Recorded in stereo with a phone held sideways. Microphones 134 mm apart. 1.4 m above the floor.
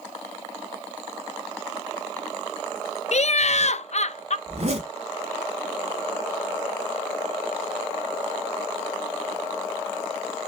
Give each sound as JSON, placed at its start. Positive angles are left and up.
{"t": 3.1, "sound": "laughter", "side_deg": 60, "distance_m": 0.6}
{"t": 4.5, "sound": "a zipper", "side_deg": -55, "distance_m": 1.6}